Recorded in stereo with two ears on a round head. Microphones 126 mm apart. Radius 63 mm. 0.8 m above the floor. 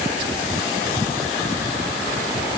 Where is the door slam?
I don't hear a door slam.